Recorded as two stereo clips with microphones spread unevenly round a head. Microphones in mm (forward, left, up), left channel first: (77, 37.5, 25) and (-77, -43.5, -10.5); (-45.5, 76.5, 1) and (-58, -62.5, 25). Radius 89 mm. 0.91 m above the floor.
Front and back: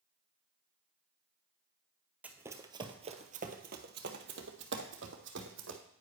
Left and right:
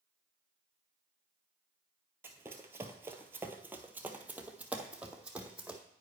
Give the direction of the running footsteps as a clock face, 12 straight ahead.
2 o'clock.